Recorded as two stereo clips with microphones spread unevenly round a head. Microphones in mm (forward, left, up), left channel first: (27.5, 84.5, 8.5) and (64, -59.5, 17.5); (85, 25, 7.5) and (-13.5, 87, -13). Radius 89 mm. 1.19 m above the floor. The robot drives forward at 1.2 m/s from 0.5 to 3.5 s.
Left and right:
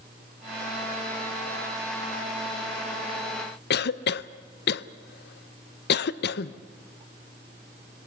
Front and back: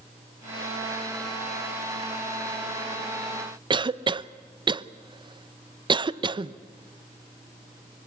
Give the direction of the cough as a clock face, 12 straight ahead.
9 o'clock.